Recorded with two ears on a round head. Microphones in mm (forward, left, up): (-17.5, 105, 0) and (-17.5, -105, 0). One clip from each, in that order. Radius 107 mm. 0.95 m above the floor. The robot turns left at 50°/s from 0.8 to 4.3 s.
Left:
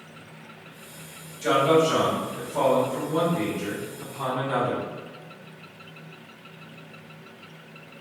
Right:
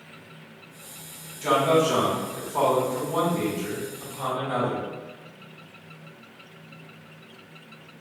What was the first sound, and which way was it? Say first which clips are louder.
A man speaking: left 1 dB; 35° right.